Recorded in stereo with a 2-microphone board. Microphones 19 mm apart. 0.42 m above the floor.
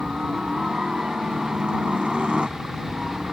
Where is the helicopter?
50° right (ahead or behind).